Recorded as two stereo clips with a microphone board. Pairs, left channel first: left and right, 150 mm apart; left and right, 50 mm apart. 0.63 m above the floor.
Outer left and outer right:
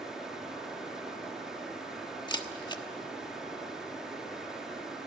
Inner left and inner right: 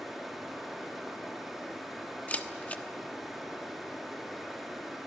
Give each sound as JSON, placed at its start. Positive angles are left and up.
{"t": 0.0, "sound": "running water", "side_deg": -5, "distance_m": 5.0}
{"t": 2.3, "sound": "a camera shutter", "side_deg": 30, "distance_m": 1.1}